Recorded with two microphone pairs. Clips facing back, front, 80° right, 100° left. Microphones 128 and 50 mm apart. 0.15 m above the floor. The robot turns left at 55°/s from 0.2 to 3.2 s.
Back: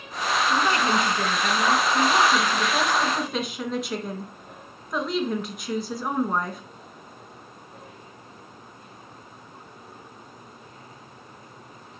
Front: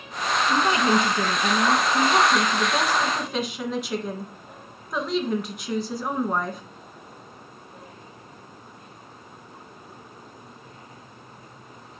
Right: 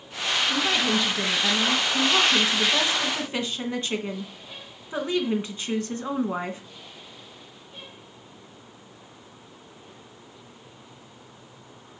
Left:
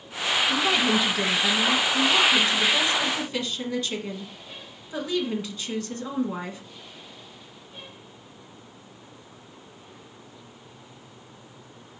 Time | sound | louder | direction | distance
0.5 | a woman speaking | front 3 dB, left 2 dB | 55° left | 1.5 m